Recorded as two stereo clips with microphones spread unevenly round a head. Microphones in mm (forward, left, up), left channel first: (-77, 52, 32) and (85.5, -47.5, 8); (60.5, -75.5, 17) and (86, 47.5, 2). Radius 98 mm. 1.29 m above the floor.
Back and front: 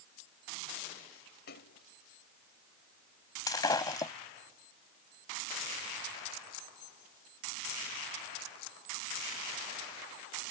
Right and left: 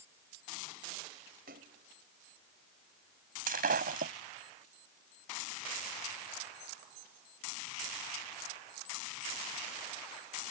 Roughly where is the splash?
Left.